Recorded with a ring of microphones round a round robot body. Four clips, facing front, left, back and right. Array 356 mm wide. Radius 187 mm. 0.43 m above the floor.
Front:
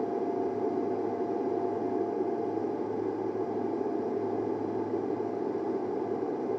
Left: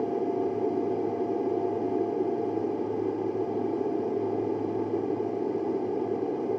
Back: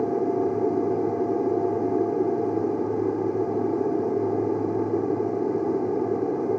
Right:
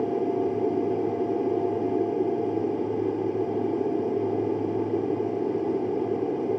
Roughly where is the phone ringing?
I don't hear a phone ringing.